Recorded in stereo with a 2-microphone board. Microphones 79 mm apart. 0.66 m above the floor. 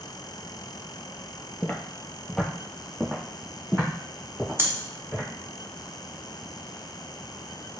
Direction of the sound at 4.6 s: 30° right (ahead or behind).